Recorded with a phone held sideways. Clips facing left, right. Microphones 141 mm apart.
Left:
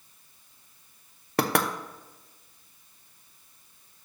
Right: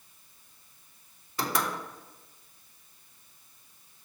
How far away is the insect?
I don't hear an insect.